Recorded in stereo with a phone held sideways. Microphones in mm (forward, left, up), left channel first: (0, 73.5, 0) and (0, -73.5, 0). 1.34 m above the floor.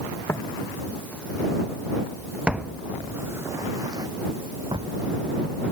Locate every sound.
0.3 s footsteps: 15° left (ahead or behind); by 4.9 s 35° right (ahead or behind)